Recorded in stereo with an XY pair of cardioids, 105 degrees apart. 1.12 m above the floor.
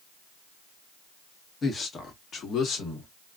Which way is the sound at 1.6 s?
35° left.